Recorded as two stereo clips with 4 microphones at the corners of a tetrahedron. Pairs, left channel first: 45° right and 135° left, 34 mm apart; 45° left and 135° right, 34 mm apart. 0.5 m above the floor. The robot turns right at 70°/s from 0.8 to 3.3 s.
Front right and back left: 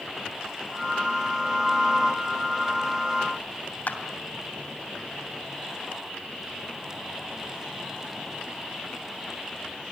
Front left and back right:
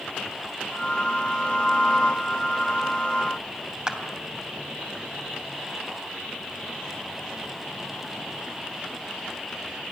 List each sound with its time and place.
3.9 s a clap: 65° right, 2.5 m